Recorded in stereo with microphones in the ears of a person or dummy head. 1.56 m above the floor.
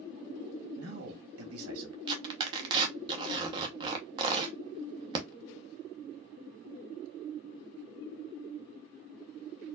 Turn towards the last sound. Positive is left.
turn(degrees=-30)  # may be behind; listen again after turning